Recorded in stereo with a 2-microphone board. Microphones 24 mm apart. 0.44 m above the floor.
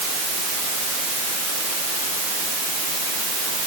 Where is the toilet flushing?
I don't hear a toilet flushing.